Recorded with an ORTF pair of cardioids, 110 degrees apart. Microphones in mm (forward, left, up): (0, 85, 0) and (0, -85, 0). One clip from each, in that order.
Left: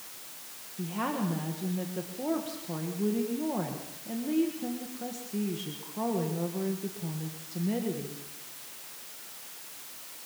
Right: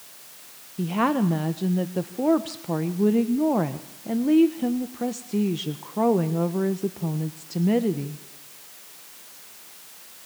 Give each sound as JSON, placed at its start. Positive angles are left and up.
{"t": 0.8, "sound": "a woman speaking", "azimuth_deg": -55, "distance_m": 1.4}